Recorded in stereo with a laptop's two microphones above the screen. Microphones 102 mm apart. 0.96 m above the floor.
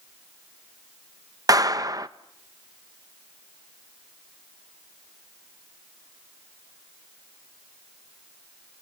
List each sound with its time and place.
1.5 s a clap: 35° right (ahead or behind), 0.5 m